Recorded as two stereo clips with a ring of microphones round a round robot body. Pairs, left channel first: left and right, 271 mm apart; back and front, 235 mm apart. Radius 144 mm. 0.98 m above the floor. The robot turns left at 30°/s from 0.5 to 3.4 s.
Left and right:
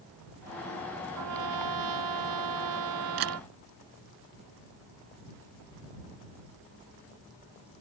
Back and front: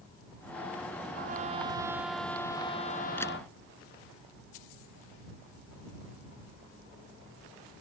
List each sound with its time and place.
1.1 s a trumpet: 60° right; by 3.5 s 125° right
3.2 s a camera shutter: 95° right; by 3.4 s 105° right